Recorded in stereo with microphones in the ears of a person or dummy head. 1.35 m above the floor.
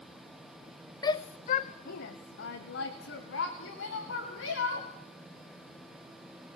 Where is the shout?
25° left (ahead or behind), 0.5 m; by 4.9 s 85° left, 3 m.